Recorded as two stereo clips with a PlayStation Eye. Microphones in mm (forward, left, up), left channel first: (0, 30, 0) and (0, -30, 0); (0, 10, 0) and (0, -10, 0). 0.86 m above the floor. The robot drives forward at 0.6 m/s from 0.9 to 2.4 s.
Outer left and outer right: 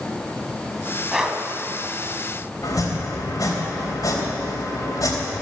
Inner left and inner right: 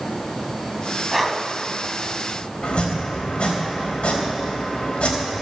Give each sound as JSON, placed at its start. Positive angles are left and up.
{"t": 1.1, "sound": "breathing", "side_deg": -5, "distance_m": 1.3}
{"t": 2.6, "sound": "chopping", "side_deg": 80, "distance_m": 3.0}